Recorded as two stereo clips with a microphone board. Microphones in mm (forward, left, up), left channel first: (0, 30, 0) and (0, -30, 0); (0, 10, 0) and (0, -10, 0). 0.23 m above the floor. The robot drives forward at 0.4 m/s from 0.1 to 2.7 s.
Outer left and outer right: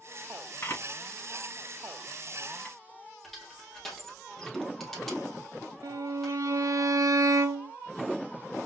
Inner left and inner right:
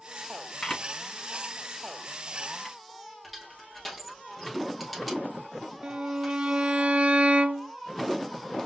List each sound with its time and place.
0.6 s a camera shutter: 35° left (ahead or behind), 2 m; by 2.8 s 25° left (ahead or behind), 2.5 m
3.2 s crushing: 5° left (ahead or behind), 2.5 m
5.8 s a violin: 70° right (ahead or behind), 0.5 m